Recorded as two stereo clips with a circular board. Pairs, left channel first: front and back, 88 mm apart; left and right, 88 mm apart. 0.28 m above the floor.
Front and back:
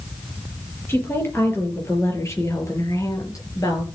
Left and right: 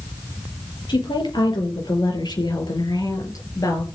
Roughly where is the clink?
I don't hear a clink.